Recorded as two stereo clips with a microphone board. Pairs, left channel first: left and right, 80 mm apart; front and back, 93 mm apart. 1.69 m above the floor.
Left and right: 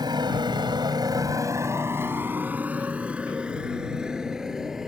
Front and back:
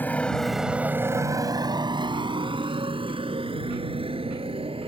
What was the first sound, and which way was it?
A motorcycle, 70° right.